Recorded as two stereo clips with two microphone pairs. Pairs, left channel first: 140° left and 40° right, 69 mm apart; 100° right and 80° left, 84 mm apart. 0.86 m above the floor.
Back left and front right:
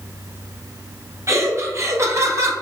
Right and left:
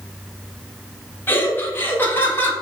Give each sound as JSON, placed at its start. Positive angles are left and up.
{"t": 1.3, "sound": "laughter", "azimuth_deg": -50, "distance_m": 1.0}